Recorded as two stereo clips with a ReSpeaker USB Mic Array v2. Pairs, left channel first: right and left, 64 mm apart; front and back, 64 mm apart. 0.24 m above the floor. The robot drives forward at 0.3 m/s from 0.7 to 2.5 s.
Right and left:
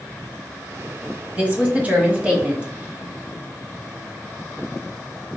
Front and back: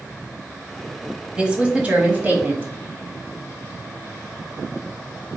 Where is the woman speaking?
120° left, 1.2 m; by 2.7 s 145° left, 1.3 m.